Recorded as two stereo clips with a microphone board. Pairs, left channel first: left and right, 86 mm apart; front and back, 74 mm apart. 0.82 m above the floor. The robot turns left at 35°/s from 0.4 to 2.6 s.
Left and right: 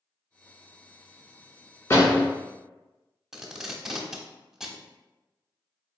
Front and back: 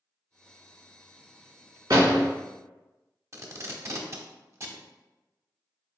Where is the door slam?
145° left, 1.9 m; by 2.3 s 130° left, 1.9 m.